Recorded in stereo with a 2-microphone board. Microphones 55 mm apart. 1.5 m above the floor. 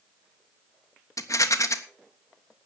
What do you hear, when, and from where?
1.2 s a rattle: 75° left (ahead or behind), 1.4 m